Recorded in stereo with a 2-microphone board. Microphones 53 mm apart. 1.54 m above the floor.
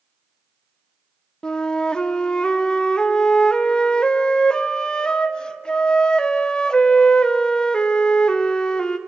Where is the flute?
15° left (ahead or behind), 0.7 m.